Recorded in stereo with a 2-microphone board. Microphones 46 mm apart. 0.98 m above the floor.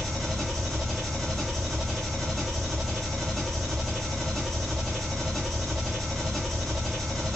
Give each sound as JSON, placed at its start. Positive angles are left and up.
{"t": 0.0, "sound": "an engine running", "side_deg": 5, "distance_m": 1.3}